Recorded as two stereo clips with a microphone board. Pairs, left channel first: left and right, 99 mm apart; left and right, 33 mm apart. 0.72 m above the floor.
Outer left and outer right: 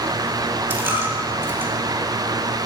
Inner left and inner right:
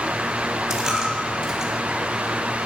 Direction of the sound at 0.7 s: 20° right (ahead or behind).